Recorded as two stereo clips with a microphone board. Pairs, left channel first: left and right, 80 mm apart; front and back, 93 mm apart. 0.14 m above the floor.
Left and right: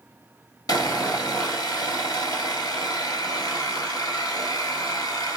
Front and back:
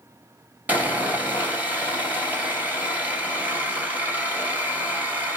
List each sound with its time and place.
0.7 s sawing: 110° left, 1.8 m